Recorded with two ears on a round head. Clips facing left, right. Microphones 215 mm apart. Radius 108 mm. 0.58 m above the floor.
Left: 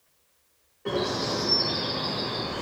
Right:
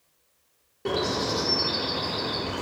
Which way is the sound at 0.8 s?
55° right (ahead or behind).